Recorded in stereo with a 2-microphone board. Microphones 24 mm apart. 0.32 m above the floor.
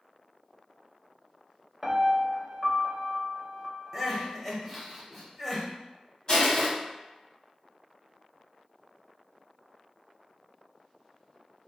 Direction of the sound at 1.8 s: 20° right (ahead or behind).